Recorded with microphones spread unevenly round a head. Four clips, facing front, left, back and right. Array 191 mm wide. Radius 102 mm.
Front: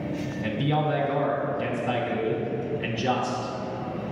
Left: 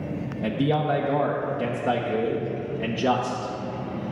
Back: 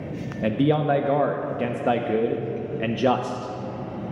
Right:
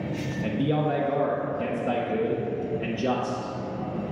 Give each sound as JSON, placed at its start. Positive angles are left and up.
{"t": 0.4, "sound": "a man speaking", "azimuth_deg": 175, "distance_m": 0.7}